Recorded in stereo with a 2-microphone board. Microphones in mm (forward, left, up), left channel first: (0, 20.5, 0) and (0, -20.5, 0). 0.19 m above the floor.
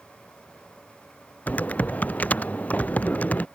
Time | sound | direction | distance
1.5 | typing on a keyboard | 40° left (ahead or behind) | ?